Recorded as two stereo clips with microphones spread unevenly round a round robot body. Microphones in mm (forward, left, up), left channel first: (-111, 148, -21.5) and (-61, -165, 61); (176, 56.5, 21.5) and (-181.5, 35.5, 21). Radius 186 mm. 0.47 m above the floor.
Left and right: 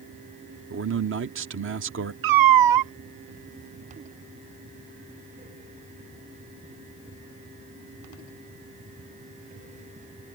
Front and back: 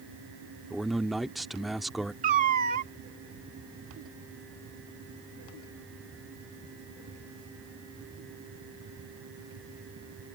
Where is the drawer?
No drawer in this recording.